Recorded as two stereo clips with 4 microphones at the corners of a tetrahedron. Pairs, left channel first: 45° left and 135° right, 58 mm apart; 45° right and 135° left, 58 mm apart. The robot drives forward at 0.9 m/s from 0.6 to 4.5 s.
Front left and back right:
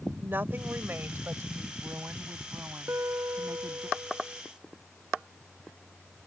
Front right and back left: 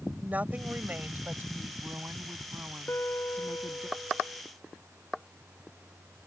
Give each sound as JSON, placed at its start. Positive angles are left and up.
{"t": 0.2, "sound": "a woman speaking", "azimuth_deg": -175}
{"t": 2.9, "sound": "a guitar", "azimuth_deg": -95}